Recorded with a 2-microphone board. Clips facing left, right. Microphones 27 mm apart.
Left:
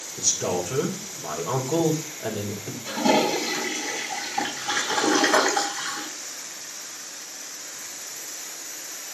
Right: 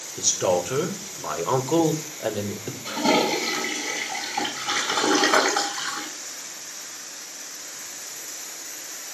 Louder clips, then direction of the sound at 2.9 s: Even; 30° right (ahead or behind).